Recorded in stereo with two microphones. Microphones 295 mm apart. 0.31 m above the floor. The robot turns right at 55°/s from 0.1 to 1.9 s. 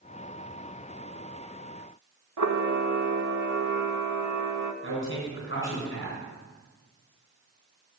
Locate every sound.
2.4 s a camera shutter: 80° right, 0.7 m
4.8 s a man speaking: 40° left (ahead or behind), 3 m